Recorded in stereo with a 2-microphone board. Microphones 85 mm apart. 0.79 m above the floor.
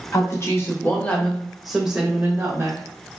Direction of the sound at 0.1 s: 40° left (ahead or behind).